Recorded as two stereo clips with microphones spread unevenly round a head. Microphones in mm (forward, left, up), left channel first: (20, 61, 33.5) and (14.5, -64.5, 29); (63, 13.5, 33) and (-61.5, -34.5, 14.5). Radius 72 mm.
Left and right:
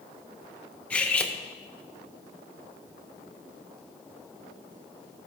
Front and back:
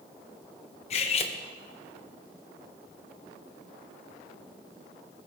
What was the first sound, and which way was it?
Cutlery clinking, 15° left.